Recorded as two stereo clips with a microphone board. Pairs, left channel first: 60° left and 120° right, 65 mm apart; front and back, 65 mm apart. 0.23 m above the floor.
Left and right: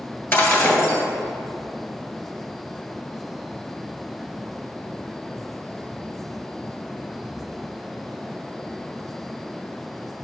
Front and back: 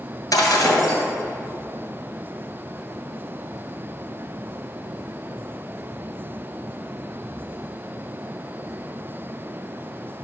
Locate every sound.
0.3 s breaking glass: 5° left, 2.5 m